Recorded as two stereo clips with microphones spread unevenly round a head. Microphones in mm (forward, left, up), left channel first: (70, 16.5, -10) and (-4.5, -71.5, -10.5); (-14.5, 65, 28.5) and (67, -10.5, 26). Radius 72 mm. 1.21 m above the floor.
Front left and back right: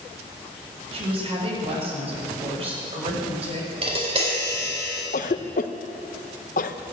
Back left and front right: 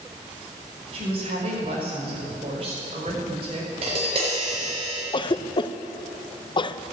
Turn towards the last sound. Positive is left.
turn(degrees=90)